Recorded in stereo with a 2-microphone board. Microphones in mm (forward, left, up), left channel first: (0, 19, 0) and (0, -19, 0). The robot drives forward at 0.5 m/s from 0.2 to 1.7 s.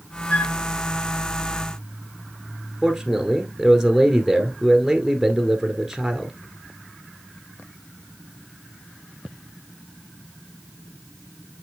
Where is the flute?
50° left (ahead or behind), 1.7 m; by 0.6 s 45° left (ahead or behind), 1.7 m.